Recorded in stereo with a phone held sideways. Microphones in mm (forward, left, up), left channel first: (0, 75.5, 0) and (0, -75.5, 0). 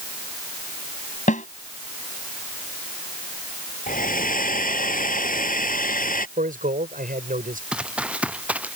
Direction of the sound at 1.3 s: 60° left (ahead or behind).